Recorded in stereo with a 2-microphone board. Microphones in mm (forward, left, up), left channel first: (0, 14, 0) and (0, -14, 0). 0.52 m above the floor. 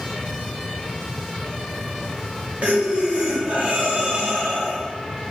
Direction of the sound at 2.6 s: 60° right (ahead or behind).